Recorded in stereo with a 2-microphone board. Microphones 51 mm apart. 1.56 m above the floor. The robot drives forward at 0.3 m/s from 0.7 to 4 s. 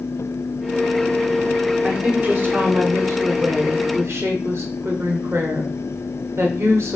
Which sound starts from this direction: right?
A woman speaking, at 1.8 s.